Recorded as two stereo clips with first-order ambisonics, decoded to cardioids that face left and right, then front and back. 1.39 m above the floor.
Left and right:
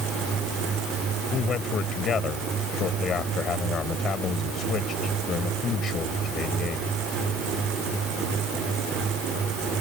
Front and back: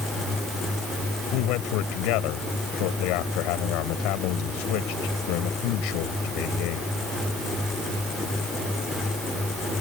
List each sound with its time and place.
1.3 s a man speaking: 20° left